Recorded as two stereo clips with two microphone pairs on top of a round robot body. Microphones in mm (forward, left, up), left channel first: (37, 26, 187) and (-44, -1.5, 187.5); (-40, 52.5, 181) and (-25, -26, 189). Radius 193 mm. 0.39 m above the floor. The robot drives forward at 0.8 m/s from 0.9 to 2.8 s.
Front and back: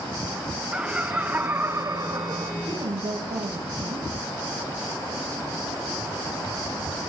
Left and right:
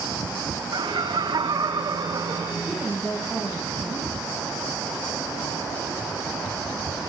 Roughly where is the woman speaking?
Behind.